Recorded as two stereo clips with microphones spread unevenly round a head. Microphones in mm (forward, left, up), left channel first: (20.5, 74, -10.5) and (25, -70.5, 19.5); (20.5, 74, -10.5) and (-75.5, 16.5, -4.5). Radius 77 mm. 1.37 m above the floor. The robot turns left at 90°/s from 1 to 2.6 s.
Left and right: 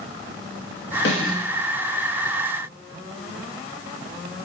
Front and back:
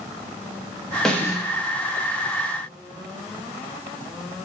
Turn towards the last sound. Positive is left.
turn(degrees=-20)